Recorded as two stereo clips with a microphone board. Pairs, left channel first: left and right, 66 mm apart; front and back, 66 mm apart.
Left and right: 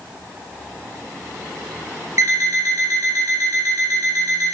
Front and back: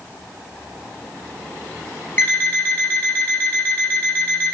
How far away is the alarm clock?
About 1.3 m.